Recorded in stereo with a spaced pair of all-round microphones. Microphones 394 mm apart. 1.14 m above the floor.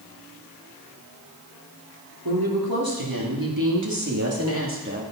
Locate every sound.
2.2 s a woman speaking: 70° right (ahead or behind), 3 m; by 5.0 s 25° right (ahead or behind), 2.5 m